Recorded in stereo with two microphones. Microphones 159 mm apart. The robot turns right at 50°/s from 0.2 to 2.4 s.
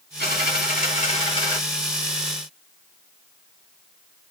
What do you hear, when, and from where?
0.2 s a dropped coin: 85° left, 1.8 m; by 1.6 s 155° left, 1.8 m